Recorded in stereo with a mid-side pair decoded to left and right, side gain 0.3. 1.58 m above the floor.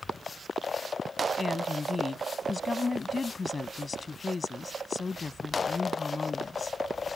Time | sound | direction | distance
1.4 | a woman speaking | 45° left | ?